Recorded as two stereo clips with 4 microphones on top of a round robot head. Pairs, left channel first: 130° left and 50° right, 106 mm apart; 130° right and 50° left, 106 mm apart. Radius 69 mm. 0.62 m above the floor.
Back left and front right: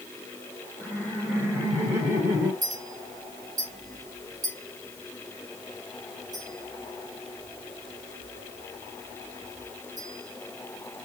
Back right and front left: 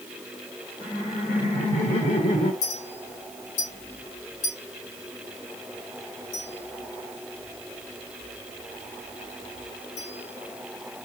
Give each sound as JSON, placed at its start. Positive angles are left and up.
{"t": 0.8, "sound": "laughter", "azimuth_deg": -120, "distance_m": 3.0}
{"t": 2.6, "sound": "a clink", "azimuth_deg": -105, "distance_m": 3.0}